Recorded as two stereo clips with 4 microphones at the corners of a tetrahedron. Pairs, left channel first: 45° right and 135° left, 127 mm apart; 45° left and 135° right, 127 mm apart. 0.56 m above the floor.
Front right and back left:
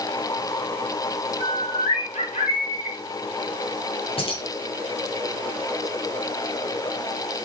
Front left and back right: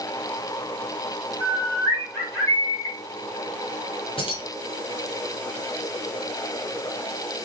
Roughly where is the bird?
Ahead right.